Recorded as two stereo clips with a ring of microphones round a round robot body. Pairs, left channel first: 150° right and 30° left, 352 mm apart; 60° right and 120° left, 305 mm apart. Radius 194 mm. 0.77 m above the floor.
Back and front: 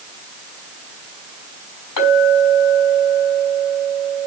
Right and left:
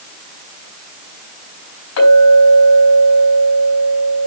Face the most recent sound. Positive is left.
turn(degrees=-105)